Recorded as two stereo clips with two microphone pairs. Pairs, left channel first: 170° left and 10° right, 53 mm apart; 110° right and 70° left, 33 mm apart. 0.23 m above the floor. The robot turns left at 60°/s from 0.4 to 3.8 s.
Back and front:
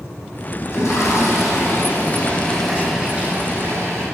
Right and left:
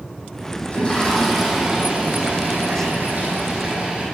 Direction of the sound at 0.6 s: 160° right.